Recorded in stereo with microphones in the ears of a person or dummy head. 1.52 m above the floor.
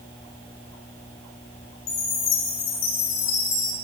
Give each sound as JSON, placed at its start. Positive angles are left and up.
{"t": 1.9, "sound": "a chime", "side_deg": 30, "distance_m": 0.7}